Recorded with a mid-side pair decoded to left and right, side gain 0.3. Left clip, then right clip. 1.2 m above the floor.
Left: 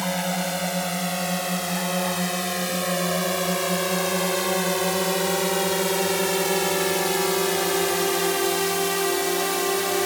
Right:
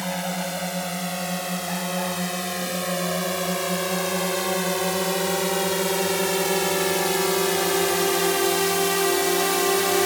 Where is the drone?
20° left; by 10.1 s 35° right.